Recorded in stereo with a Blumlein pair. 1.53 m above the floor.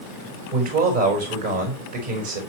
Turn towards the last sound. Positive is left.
turn(degrees=-55)